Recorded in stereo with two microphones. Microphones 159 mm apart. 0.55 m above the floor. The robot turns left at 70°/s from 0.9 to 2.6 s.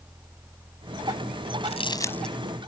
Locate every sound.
1.6 s crumpling: 45° left (ahead or behind); by 2.3 s centre (ahead or behind)